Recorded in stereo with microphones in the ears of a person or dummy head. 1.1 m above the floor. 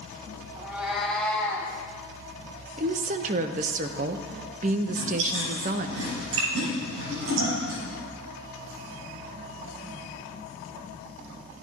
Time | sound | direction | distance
0.6 | a cat meowing | 10° right (ahead or behind) | 1.8 m
2.8 | a woman speaking | 40° right (ahead or behind) | 0.7 m
4.9 | chewing | 85° right | 6.5 m